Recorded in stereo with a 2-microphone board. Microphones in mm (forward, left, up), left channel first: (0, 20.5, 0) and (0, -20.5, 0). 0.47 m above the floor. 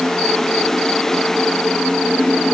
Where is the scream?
I don't hear a scream.